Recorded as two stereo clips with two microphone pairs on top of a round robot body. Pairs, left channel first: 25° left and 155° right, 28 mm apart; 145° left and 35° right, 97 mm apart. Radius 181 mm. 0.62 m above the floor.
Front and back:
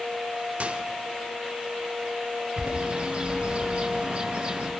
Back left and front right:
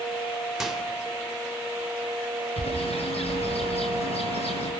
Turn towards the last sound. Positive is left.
turn(degrees=145)